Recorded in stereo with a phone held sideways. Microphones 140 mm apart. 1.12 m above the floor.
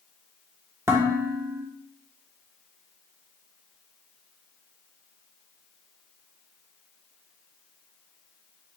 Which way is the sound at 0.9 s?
20° right (ahead or behind).